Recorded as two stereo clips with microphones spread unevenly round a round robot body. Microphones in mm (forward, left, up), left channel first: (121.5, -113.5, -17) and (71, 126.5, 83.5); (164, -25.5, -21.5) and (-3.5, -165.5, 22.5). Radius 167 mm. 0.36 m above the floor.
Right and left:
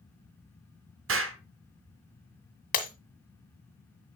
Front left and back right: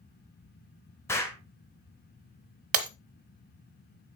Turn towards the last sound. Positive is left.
turn(degrees=-125)